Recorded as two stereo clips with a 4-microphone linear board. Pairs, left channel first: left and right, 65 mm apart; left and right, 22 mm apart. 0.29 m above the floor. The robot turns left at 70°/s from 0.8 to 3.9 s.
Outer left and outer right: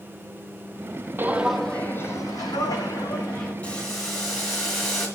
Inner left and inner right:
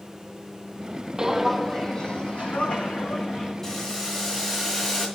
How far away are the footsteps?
About 0.6 m.